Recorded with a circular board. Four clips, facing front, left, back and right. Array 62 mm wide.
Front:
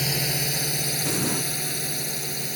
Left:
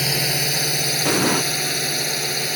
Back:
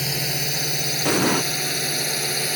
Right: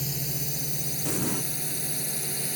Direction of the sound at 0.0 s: 95° left.